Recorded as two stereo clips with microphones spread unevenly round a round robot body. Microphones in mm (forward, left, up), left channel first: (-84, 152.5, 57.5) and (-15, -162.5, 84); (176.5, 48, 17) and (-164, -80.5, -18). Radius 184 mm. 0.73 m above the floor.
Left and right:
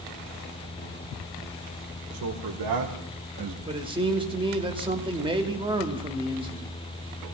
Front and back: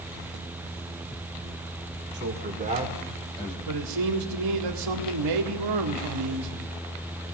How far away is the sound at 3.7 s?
About 2 m.